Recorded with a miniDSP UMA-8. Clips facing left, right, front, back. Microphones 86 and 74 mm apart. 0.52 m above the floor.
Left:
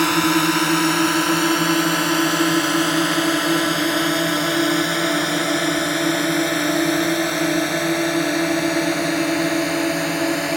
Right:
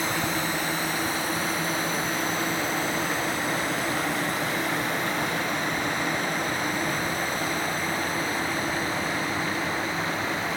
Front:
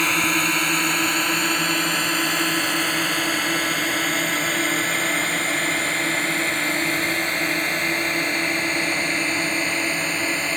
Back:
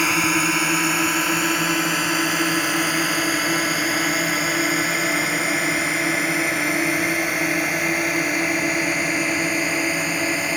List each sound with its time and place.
0.0 s a drone: 95° left; by 10.6 s 100° left